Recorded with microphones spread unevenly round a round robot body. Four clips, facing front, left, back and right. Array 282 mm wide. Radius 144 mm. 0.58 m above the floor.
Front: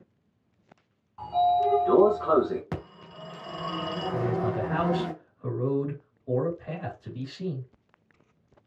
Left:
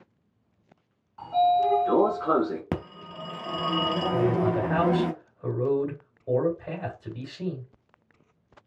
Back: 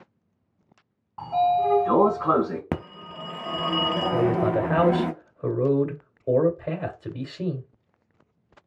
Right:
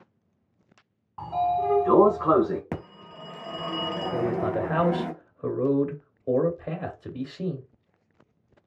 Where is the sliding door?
130° right, 1.2 m.